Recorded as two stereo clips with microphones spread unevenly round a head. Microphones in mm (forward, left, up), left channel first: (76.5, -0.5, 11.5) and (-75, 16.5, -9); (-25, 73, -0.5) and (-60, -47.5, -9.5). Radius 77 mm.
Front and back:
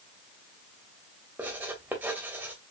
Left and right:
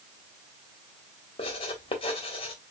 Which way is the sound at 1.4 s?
90° left.